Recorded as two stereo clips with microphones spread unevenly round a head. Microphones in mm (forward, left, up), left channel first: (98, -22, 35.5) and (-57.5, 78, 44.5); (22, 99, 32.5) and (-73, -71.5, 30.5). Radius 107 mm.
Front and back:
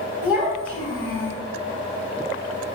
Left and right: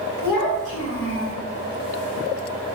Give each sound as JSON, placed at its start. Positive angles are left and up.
{"t": 0.2, "sound": "a child speaking", "azimuth_deg": 70, "distance_m": 1.5}